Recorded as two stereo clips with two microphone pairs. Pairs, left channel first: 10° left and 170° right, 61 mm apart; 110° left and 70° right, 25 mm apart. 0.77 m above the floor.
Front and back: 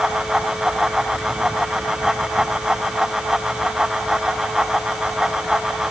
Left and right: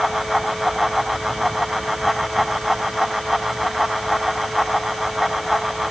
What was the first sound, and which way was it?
Only background noise.